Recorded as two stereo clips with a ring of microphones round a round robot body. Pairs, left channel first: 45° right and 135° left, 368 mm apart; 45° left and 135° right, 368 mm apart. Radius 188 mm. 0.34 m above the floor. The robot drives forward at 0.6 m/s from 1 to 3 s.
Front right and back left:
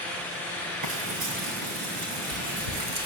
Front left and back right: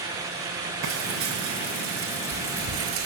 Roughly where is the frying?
Behind.